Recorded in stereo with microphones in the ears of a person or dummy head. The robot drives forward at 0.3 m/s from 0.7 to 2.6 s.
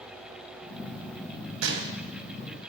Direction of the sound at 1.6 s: 75° right (ahead or behind).